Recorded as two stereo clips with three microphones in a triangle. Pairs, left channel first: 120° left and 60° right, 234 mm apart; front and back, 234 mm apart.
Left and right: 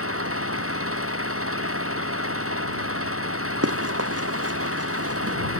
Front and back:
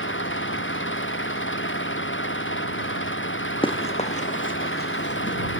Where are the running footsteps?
70° right; by 5.4 s 40° right.